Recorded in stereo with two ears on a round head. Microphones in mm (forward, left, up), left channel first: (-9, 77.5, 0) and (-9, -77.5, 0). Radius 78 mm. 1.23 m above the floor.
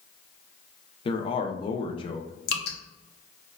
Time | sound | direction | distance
1.1 | a man speaking | 30° left (ahead or behind) | 0.5 m
2.5 | dripping | 65° left (ahead or behind) | 0.8 m